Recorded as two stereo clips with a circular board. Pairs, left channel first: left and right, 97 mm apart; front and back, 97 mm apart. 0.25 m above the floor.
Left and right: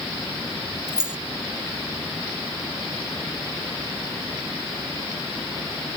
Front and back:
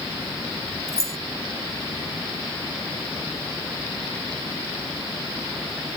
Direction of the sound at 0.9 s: 165° right.